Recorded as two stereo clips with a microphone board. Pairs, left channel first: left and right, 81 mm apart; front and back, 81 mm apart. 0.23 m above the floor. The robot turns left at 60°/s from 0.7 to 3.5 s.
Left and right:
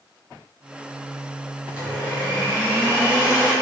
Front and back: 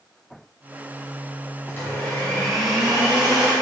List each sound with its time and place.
1.7 s a blender: 35° right, 1.4 m; by 3.5 s 145° right, 1.4 m